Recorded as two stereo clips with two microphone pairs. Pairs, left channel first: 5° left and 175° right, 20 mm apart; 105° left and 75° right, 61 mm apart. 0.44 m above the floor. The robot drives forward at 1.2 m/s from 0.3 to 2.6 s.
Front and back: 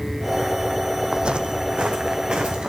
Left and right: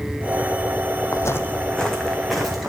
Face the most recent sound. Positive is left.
turn(degrees=-160)